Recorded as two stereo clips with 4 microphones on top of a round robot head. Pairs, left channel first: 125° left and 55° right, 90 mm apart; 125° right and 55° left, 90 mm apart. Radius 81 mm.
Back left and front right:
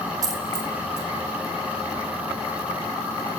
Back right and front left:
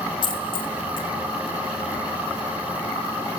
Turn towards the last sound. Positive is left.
turn(degrees=-100)